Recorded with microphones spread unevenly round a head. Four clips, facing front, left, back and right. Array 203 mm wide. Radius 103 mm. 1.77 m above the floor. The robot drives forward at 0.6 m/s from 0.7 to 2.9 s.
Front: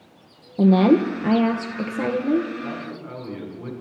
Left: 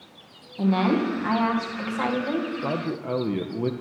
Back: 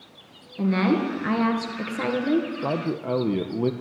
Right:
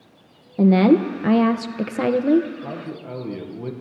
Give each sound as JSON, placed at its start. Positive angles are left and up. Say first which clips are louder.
{"t": 0.6, "sound": "a woman speaking", "louder": "right 7 dB, front 7 dB", "azimuth_deg": -55, "distance_m": 1.9}
{"t": 2.6, "sound": "a man speaking", "louder": "left 4 dB, back 6 dB", "azimuth_deg": 155, "distance_m": 1.5}